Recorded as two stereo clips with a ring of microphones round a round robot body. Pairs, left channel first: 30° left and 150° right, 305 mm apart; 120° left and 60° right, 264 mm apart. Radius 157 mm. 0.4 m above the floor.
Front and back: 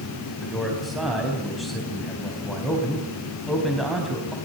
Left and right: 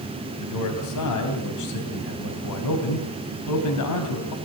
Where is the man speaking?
120° left, 4 m.